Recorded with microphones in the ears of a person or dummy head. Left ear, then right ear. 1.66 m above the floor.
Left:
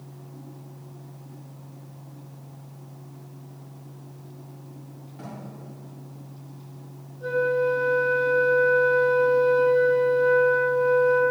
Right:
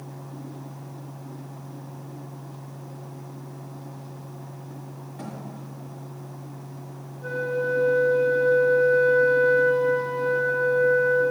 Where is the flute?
55° left (ahead or behind), 3 m.